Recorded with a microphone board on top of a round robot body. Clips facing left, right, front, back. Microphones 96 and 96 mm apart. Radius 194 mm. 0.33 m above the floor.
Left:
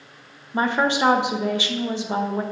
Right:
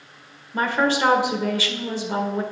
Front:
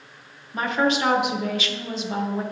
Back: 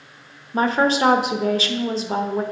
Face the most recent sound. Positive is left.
turn(degrees=150)